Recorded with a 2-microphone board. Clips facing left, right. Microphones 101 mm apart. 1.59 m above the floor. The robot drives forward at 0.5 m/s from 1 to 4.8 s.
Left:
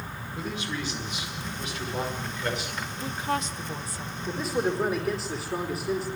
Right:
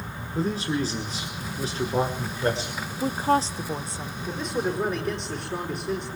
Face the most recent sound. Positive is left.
turn(degrees=5)  # may be behind; listen again after turning